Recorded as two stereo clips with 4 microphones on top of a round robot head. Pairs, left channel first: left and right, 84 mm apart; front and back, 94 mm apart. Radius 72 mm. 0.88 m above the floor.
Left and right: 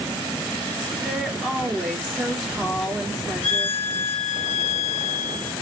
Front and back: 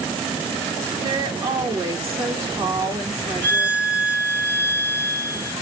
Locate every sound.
1.0 s a woman speaking: 175° right, 0.9 m
3.4 s a violin: 75° left, 2 m